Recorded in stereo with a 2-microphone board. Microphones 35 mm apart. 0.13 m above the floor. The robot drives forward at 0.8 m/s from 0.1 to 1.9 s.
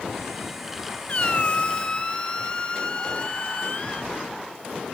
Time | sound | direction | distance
1.1 | a squeak | 40° left (ahead or behind) | 0.6 m